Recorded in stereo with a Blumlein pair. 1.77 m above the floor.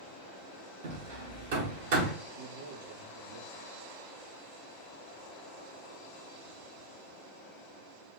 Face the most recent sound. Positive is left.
turn(degrees=-70)